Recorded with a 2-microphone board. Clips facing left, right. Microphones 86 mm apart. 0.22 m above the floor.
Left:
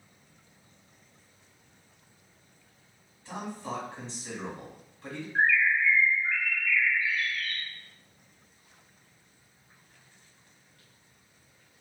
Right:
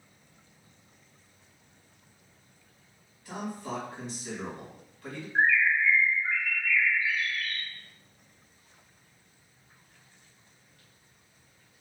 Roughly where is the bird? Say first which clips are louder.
Right 1 dB; right.